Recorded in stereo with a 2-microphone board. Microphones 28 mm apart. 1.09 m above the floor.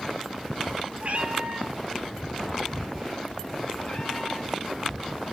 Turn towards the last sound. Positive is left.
turn(degrees=45)  # may be behind; listen again after turning